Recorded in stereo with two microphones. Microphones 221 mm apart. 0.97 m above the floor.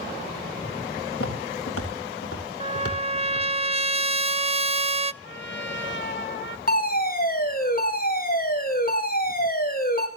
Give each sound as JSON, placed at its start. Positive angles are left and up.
{"t": 1.1, "sound": "footsteps", "side_deg": 70, "distance_m": 7.5}
{"t": 2.6, "sound": "a trumpet", "side_deg": -25, "distance_m": 0.6}
{"t": 5.2, "sound": "a trumpet", "side_deg": 55, "distance_m": 1.9}
{"t": 6.7, "sound": "a fire alarm", "side_deg": 40, "distance_m": 6.0}